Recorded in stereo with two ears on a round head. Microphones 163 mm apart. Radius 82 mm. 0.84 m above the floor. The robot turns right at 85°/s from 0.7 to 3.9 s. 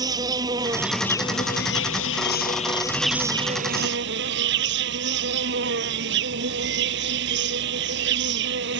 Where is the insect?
20° right; by 8.8 s 110° right.